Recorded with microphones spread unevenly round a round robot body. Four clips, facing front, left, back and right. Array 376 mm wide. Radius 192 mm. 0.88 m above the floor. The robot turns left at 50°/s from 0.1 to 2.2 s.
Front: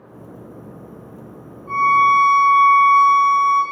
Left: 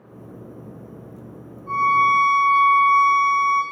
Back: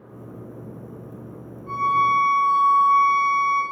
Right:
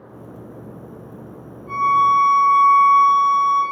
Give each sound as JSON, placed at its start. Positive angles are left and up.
{"t": 1.7, "sound": "a violin", "azimuth_deg": 125, "distance_m": 2.0}